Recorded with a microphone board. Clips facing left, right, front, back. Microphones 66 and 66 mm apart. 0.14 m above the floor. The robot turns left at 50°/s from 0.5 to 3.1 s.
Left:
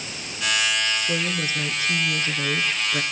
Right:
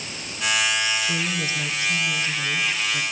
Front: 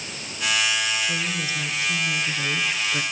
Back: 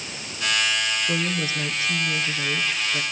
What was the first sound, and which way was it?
A woman speaking, 155° left.